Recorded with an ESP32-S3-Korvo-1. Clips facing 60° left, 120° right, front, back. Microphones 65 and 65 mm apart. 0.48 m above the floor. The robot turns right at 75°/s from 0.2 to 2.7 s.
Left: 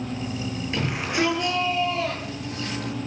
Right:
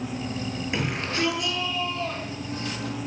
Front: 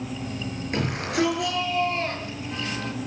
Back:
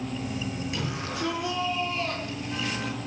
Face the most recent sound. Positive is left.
turn(degrees=100)